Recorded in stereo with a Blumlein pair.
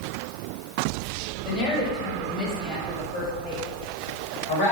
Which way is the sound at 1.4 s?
30° left.